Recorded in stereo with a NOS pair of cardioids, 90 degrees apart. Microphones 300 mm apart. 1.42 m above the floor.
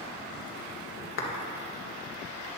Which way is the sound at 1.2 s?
45° left.